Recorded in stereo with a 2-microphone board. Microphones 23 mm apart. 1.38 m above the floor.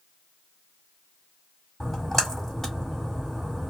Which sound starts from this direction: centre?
A splash, at 1.8 s.